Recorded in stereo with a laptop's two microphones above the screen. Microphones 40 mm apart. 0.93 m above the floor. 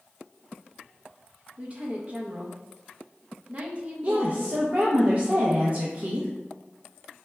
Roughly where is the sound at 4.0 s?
Right.